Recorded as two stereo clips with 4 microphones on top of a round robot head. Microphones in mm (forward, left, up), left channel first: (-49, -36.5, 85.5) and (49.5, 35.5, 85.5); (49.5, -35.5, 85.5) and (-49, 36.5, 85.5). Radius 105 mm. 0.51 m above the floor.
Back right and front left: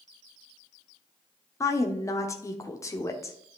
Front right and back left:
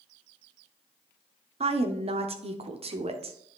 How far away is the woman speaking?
About 1.1 m.